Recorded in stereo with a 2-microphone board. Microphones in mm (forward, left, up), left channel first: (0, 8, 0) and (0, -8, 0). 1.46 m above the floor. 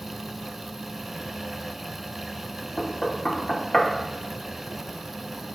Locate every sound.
2.8 s knocking: 40° left (ahead or behind), 0.7 m